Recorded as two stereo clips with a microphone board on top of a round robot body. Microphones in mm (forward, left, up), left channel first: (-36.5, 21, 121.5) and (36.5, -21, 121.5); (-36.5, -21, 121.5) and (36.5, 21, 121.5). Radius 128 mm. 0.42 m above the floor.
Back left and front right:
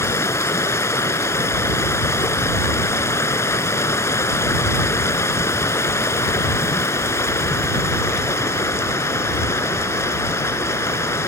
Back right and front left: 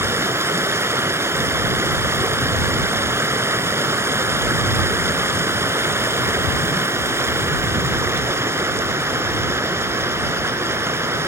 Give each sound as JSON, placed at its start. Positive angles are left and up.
{"t": 0.0, "sound": "running water", "azimuth_deg": 90}